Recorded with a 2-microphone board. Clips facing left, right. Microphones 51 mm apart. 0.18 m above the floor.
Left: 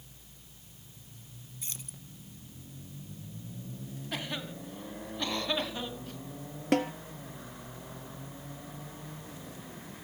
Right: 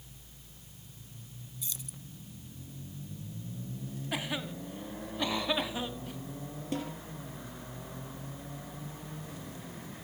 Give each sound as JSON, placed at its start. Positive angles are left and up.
{"t": 1.6, "sound": "keys jangling", "side_deg": 40, "distance_m": 1.3}
{"t": 4.1, "sound": "a cough", "side_deg": -10, "distance_m": 1.7}
{"t": 6.7, "sound": "a snare drum", "side_deg": 65, "distance_m": 1.7}